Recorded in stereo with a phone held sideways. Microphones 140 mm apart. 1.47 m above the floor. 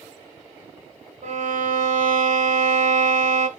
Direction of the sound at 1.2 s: 70° right (ahead or behind).